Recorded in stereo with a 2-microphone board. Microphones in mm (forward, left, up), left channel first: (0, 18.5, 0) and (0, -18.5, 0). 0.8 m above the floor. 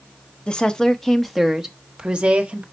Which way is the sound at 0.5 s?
25° left (ahead or behind).